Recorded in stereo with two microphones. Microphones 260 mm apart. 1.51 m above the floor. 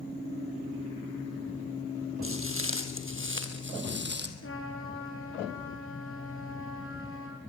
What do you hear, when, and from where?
2.2 s footsteps: 55° right (ahead or behind), 2.5 m; by 4.3 s 40° right (ahead or behind), 3 m
4.4 s a trumpet: 55° left (ahead or behind), 7 m